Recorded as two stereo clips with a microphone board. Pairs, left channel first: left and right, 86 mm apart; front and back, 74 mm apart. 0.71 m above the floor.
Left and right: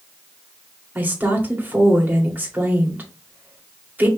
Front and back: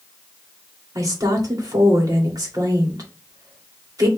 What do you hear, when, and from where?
0.9 s a woman speaking: 155° right, 2 m